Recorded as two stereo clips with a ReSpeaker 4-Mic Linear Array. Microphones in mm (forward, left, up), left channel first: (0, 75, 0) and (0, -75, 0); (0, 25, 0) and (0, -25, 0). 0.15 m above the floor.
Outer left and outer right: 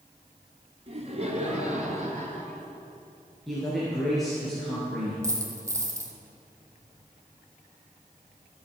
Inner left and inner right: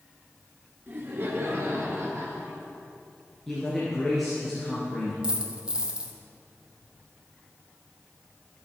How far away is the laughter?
About 2.0 m.